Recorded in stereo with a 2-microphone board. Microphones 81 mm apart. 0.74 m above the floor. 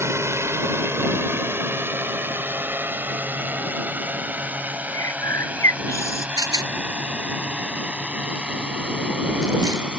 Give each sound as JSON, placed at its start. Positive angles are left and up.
{"t": 0.0, "sound": "a drone", "side_deg": -30}
{"t": 4.9, "sound": "a bird", "side_deg": 35}
{"t": 6.4, "sound": "a rattle", "side_deg": -50}